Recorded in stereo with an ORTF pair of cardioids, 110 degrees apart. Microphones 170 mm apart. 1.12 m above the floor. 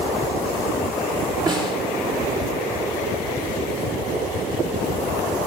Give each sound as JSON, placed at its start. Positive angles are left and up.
{"t": 1.5, "sound": "a snare drum", "azimuth_deg": -25, "distance_m": 4.5}